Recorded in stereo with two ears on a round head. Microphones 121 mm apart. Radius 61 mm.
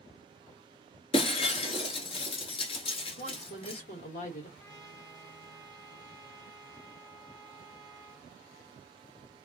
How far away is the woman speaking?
About 1.2 m.